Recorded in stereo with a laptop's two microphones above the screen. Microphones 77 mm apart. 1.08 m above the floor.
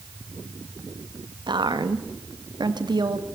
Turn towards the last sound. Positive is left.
turn(degrees=-65)  # may be behind; listen again after turning